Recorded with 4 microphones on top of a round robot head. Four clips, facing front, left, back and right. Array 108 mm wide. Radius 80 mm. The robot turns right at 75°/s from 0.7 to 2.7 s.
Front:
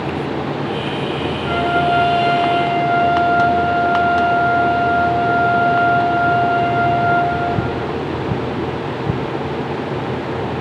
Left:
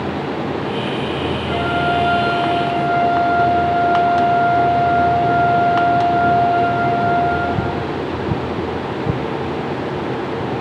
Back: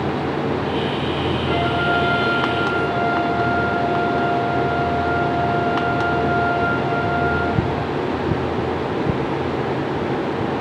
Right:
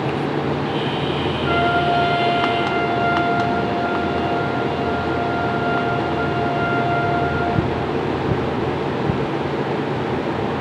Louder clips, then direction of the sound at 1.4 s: Right 2 dB, front 5 dB; 60° right.